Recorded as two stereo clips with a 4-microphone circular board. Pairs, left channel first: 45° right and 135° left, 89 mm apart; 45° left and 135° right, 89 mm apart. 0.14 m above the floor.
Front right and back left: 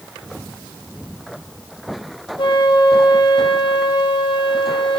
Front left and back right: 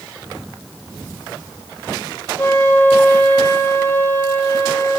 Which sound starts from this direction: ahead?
A flute, at 2.4 s.